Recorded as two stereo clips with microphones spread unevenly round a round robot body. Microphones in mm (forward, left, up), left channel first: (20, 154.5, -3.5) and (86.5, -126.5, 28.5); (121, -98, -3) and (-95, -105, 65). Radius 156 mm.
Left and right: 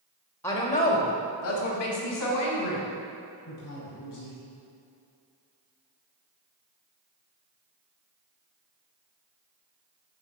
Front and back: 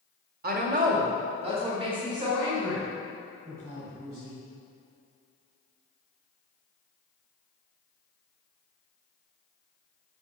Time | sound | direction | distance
0.4 | a woman speaking | 160° left | 1.4 m